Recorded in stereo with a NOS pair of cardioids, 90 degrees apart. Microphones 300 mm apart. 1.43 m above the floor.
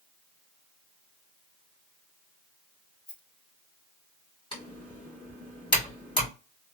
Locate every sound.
3.1 s a rattle: 30° left, 2 m
4.5 s typing on a keyboard: 15° left, 2 m